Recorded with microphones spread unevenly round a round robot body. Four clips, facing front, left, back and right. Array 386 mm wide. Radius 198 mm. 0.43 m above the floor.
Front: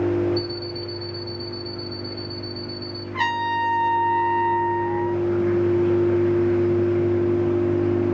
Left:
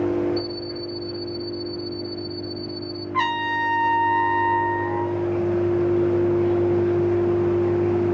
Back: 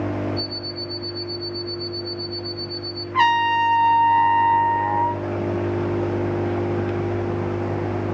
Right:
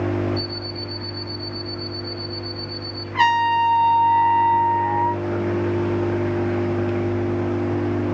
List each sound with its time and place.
0.4 s an alarm clock: 15° left, 1.0 m
3.1 s a trumpet: 165° left, 1.7 m